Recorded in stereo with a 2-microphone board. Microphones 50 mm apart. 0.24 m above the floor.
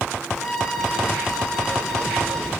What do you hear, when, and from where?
0.3 s a violin: 10° left (ahead or behind), 3.5 m